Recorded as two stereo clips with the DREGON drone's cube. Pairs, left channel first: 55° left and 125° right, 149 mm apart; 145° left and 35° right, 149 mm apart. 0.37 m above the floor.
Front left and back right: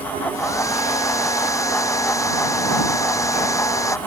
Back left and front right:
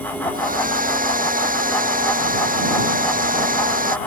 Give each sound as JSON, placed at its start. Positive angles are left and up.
{"t": 0.3, "sound": "a hair dryer", "azimuth_deg": -15}